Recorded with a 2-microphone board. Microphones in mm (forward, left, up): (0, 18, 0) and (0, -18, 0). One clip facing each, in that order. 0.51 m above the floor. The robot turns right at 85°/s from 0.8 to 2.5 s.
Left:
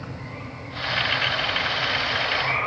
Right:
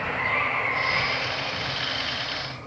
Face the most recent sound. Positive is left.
turn(degrees=80)